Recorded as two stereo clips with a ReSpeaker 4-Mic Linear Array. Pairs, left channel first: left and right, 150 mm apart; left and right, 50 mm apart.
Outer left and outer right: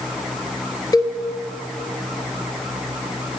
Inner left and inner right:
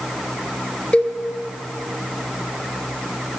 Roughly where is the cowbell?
Left.